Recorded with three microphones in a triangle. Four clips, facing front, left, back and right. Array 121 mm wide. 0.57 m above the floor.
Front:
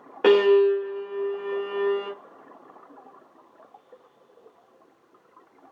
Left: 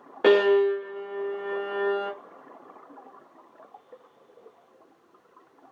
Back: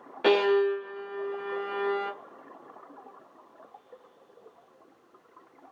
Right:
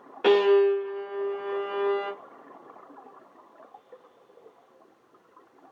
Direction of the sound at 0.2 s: 40° left.